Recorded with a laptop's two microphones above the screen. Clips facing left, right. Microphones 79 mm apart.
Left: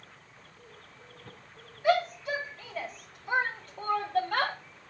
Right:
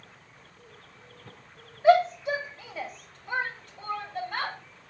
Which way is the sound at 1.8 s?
30° right (ahead or behind).